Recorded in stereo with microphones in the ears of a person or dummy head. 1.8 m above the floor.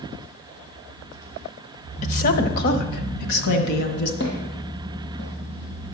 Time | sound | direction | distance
2.0 | a woman speaking | 50° left (ahead or behind) | 0.9 m
4.2 | footsteps | 65° left (ahead or behind) | 4.5 m